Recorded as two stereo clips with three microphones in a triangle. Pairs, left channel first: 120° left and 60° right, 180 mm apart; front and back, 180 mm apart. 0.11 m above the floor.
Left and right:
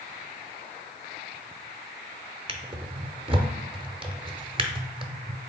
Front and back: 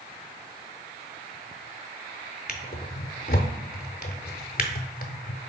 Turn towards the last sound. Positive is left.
turn(degrees=-5)